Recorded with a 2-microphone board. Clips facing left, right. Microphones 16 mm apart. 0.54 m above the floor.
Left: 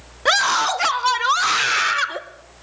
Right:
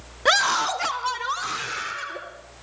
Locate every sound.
0.2 s a scream: 5° left (ahead or behind), 0.7 m; by 2.2 s 45° left (ahead or behind), 1.5 m